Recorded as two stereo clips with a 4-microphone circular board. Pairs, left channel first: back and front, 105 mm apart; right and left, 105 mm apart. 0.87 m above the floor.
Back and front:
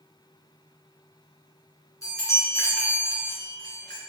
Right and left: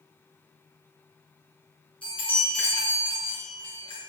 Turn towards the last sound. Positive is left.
turn(degrees=-120)